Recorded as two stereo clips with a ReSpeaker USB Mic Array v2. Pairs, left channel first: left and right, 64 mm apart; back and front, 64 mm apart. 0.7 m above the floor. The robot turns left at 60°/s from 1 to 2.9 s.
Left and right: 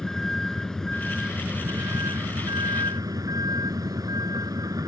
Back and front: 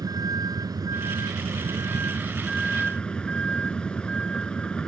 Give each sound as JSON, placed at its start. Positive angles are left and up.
{"t": 0.0, "sound": "a vehicle", "azimuth_deg": 10}